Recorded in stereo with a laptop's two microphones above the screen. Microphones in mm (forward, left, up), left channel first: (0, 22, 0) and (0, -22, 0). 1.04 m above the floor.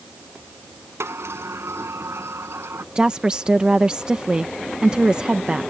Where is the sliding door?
75° right (ahead or behind).